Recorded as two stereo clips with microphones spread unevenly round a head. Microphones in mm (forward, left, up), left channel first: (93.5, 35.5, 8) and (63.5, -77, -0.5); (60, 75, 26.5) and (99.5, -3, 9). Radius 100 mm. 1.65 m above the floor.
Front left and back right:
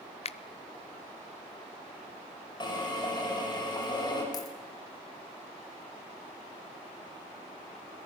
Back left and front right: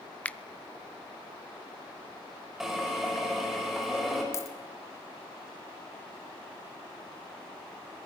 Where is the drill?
25° left, 6 m.